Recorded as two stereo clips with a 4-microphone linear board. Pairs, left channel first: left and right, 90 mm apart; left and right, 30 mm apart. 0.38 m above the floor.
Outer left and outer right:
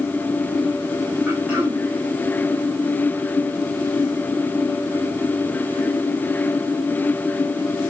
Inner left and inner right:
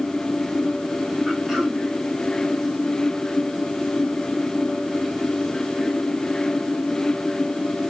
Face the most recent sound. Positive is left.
turn(degrees=-20)  # may be behind; listen again after turning